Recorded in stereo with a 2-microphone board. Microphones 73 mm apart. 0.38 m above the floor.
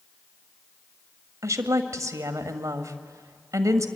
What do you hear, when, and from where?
1.4 s a woman speaking: 45° right (ahead or behind), 1.6 m